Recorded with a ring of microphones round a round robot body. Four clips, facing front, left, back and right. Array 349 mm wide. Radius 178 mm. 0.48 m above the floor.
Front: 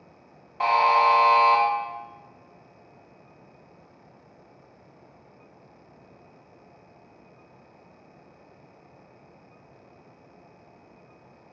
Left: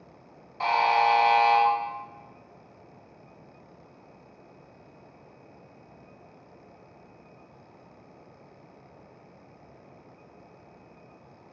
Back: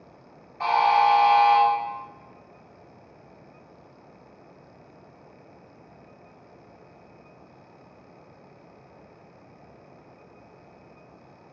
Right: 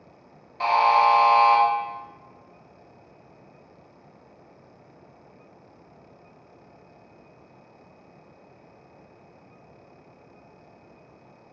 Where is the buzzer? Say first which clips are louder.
Right 4 dB, even; 10° right, 0.7 m.